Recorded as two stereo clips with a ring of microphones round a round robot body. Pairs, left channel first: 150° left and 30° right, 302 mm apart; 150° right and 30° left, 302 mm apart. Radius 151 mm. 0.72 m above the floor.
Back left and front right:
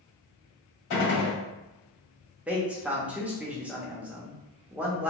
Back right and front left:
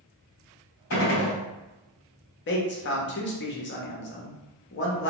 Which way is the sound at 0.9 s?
165° left.